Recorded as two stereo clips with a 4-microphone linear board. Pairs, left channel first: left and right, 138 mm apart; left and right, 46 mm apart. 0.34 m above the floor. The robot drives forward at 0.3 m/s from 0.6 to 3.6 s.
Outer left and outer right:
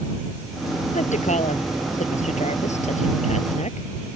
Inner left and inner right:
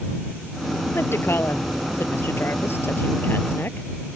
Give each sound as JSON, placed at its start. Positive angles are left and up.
{"t": 0.9, "sound": "a woman speaking", "side_deg": 60}